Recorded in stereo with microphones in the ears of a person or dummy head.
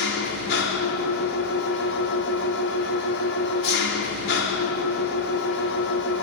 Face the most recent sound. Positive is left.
turn(degrees=70)  # may be behind; listen again after turning